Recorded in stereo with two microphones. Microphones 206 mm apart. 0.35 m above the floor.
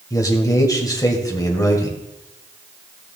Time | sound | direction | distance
0.1 | a man speaking | 15° left (ahead or behind) | 1.9 m